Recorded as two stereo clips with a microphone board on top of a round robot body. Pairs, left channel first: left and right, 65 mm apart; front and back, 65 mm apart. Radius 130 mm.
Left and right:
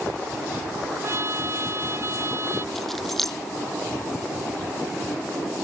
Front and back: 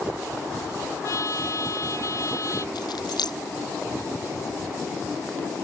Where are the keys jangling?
5° left.